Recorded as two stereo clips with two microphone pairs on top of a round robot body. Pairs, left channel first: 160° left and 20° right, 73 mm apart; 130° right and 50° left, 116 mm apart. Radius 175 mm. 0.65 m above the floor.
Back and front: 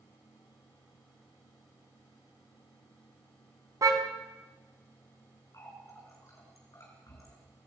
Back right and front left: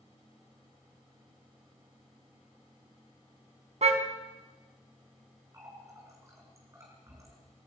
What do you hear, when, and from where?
3.8 s a car horn: 25° left, 3 m
5.5 s a running tap: 115° left, 6.5 m